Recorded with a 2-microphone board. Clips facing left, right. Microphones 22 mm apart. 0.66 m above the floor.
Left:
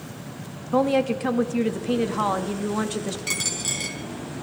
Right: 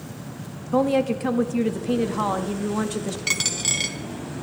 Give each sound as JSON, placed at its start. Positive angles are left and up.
{"t": 0.7, "sound": "a woman speaking", "side_deg": 10, "distance_m": 0.5}
{"t": 3.3, "sound": "a dropped coin", "side_deg": -35, "distance_m": 1.1}